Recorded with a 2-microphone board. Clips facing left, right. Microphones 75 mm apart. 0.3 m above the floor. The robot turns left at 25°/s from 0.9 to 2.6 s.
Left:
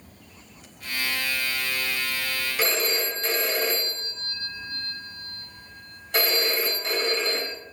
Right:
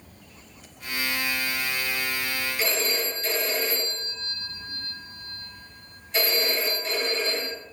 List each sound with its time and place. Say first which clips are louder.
2.6 s a phone ringing: left 3 dB; 60° left (ahead or behind), 1.7 m